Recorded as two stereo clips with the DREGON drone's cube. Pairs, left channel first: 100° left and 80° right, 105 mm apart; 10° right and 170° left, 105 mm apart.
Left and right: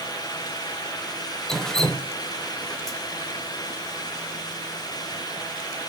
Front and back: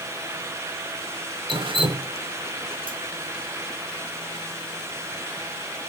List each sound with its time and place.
1.5 s dripping: 175° right, 0.6 m